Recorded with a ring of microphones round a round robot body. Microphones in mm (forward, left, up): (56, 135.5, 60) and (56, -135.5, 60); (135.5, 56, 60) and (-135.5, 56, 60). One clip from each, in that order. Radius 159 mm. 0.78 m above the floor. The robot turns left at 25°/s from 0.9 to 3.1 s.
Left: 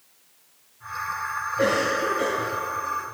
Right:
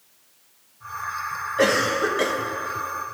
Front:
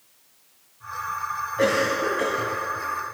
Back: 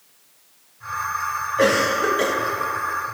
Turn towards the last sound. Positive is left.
turn(degrees=-140)